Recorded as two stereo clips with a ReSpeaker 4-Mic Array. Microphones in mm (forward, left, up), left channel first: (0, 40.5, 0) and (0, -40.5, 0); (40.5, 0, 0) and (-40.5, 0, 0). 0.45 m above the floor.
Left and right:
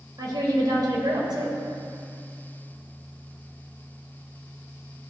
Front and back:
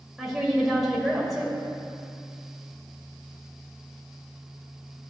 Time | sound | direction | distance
0.2 | a woman speaking | 90° right | 2 m